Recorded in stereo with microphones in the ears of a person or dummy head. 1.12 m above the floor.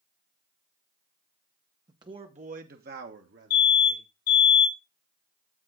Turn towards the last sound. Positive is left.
turn(degrees=65)  # may be behind; listen again after turning